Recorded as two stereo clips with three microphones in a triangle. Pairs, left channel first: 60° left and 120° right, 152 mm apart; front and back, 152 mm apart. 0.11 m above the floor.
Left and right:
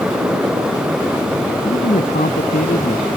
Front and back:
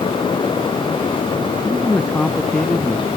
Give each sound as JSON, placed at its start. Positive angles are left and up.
{"t": 1.6, "sound": "a man speaking", "azimuth_deg": 80}